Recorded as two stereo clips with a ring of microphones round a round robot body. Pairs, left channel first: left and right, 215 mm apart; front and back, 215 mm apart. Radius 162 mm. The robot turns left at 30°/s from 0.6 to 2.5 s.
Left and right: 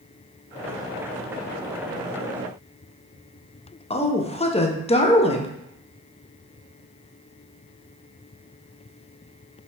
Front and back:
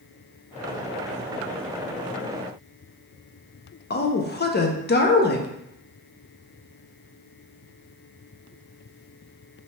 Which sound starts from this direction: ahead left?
A woman speaking, at 3.9 s.